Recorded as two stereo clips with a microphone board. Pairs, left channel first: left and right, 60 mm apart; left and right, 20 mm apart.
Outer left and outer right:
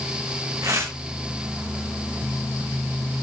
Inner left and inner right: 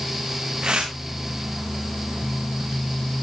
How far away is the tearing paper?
About 6 m.